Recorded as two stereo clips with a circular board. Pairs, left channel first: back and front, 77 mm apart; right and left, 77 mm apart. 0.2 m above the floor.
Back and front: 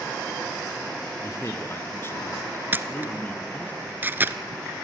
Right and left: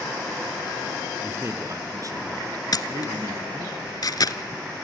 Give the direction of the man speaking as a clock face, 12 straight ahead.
7 o'clock.